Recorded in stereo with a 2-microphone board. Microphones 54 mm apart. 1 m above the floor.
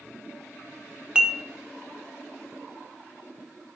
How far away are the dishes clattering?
About 0.6 m.